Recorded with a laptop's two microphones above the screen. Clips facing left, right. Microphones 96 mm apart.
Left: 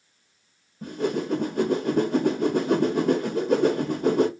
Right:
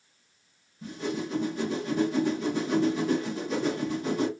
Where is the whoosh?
50° left (ahead or behind), 0.6 m.